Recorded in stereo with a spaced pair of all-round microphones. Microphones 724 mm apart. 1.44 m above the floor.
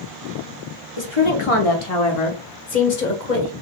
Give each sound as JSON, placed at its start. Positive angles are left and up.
{"t": 1.0, "sound": "a woman speaking", "side_deg": 35, "distance_m": 1.6}